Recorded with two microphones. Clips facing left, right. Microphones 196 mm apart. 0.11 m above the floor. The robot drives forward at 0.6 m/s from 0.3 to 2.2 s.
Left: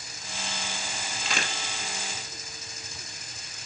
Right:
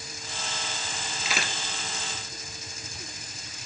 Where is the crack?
5° right (ahead or behind), 2 m.